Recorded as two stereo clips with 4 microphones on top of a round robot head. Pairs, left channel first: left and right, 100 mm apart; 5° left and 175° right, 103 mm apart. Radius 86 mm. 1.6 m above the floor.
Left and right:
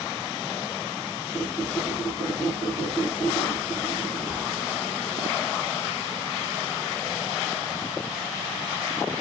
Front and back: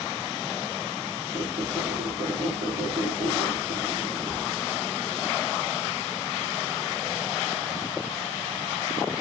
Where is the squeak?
165° left, 3.5 m.